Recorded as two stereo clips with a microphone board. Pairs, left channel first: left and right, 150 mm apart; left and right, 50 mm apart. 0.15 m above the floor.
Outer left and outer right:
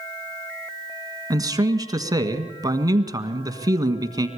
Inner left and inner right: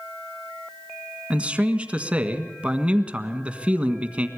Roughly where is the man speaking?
Right.